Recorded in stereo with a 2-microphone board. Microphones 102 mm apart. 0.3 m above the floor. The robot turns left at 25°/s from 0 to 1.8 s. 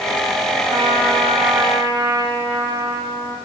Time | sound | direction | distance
0.7 | a trumpet | 45° right (ahead or behind) | 1.5 m